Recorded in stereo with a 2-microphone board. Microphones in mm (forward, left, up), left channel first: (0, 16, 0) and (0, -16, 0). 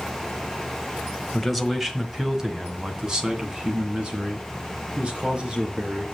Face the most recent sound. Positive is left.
turn(degrees=-30)  # may be behind; listen again after turning